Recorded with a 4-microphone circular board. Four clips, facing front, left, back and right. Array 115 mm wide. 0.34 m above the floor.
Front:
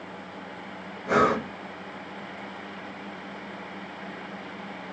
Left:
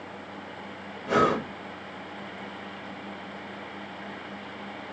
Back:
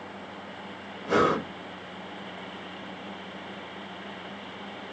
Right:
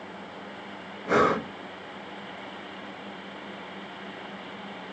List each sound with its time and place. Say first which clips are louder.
1.1 s breathing: right 1 dB, front 1 dB; 60° right, 0.8 m